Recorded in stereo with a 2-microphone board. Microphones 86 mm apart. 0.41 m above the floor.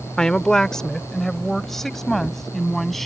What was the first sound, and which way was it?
A woman speaking, 10° left (ahead or behind).